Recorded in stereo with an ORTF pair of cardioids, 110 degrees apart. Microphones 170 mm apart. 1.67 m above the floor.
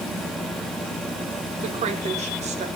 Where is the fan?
Straight ahead, 4.5 m.